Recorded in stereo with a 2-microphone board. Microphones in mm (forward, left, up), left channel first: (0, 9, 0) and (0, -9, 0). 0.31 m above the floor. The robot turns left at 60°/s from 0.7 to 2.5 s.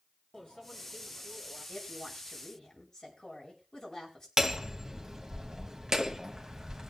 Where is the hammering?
25° right (ahead or behind), 1.1 m.